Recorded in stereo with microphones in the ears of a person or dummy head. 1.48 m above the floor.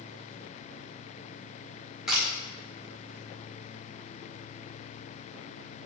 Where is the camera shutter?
5° left (ahead or behind), 2.5 m.